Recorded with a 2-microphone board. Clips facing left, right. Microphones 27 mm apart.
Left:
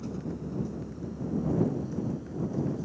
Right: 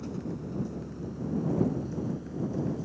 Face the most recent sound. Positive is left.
turn(degrees=-10)  # may be behind; listen again after turning